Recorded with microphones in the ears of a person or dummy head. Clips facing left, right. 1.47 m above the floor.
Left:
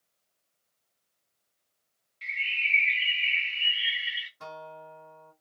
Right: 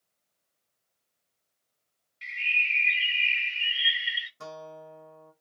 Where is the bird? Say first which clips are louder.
Right 2 dB; 10° right (ahead or behind), 0.6 m.